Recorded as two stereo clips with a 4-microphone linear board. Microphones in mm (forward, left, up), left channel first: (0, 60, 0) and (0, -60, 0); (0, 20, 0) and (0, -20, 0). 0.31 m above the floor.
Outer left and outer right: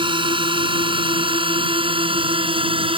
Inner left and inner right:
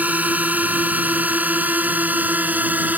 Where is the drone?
45° right (ahead or behind).